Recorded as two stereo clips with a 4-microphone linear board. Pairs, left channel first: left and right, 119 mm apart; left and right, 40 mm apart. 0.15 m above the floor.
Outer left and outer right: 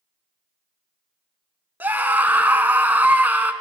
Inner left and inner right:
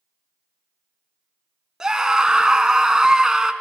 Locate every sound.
1.8 s a scream: 15° right (ahead or behind), 1.1 m